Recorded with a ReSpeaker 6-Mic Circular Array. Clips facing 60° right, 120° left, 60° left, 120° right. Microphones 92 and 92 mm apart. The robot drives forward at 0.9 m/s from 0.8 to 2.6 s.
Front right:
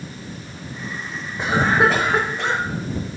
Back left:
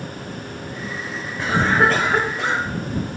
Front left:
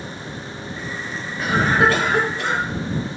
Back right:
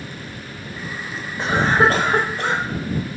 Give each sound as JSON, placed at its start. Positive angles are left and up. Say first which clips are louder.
{"t": 1.4, "sound": "a cough", "louder": "even, back right 1 dB", "azimuth_deg": -110, "distance_m": 1.2}